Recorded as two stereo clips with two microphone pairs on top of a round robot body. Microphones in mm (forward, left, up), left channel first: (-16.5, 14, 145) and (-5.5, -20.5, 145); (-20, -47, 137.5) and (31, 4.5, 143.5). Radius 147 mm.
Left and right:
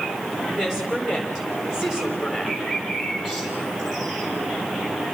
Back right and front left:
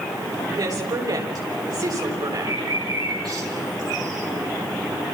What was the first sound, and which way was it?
A woman speaking, 5° left.